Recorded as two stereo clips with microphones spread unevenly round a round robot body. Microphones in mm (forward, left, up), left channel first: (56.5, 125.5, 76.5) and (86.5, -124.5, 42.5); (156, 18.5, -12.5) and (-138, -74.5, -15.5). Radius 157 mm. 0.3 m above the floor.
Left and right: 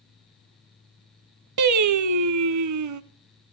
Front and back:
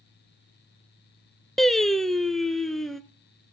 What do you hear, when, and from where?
1.6 s singing: 70° right, 0.8 m